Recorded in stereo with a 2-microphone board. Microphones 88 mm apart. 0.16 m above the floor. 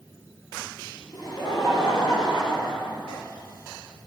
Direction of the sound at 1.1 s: 55° left (ahead or behind).